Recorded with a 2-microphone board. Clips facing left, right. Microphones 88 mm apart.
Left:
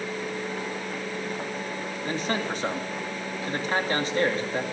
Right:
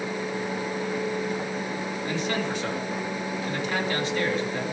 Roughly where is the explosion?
No explosion in this recording.